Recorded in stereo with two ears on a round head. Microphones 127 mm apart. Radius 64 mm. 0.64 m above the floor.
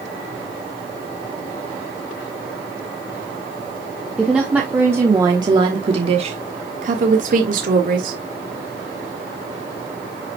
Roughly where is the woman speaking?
Centre.